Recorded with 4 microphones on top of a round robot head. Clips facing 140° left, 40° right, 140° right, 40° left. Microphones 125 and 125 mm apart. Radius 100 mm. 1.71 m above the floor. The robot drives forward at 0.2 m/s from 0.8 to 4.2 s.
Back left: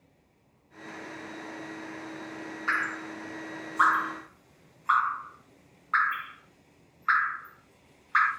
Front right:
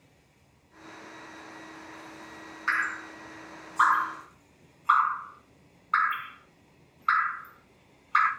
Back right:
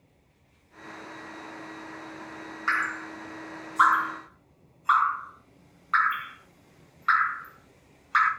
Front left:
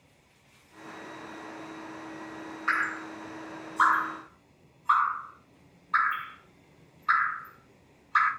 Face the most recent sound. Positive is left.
turn(degrees=-110)